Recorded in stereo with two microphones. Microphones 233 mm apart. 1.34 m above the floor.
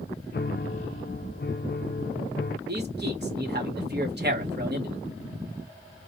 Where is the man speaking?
45° right (ahead or behind), 1.7 m.